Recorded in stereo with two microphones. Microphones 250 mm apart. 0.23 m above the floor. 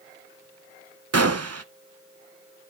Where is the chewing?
No chewing in this recording.